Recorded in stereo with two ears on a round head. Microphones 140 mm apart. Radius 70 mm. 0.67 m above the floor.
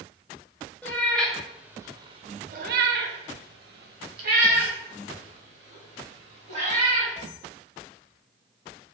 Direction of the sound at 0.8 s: 10° left (ahead or behind).